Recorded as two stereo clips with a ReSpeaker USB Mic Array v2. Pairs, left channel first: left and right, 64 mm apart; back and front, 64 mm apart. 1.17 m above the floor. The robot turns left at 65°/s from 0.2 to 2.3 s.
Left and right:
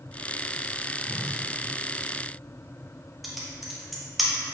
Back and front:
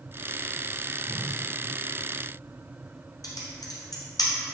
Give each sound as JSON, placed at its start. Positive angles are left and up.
{"t": 1.1, "sound": "a whoosh", "azimuth_deg": 130, "distance_m": 0.6}
{"t": 3.2, "sound": "typing on a keyboard", "azimuth_deg": 180, "distance_m": 0.7}